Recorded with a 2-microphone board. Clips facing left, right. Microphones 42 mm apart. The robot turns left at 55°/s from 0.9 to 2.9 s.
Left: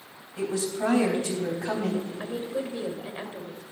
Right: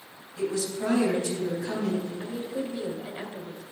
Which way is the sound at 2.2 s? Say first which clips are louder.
Left 1 dB; 60° left.